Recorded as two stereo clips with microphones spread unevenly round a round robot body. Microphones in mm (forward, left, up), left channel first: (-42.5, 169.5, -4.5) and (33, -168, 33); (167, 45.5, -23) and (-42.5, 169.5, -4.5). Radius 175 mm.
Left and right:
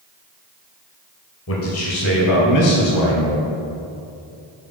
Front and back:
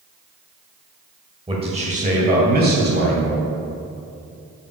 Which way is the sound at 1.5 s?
80° left.